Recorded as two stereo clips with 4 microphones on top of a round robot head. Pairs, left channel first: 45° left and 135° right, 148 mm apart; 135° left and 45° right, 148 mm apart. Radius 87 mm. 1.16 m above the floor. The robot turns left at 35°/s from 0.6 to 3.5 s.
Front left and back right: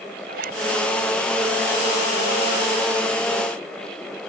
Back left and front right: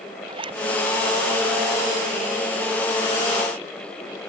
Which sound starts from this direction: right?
A zipper, at 0.3 s.